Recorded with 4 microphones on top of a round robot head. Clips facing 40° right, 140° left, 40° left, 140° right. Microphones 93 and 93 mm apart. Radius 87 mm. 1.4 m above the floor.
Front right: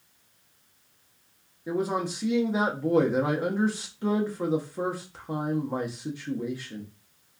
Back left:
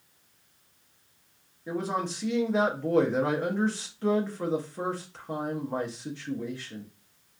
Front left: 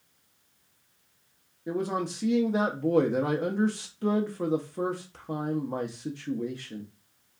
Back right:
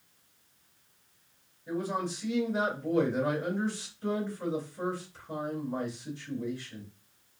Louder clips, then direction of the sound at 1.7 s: Front right 3 dB, front left 3 dB; 35° left.